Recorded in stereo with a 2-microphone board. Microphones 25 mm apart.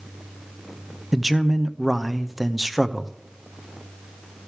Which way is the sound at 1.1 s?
5° right (ahead or behind).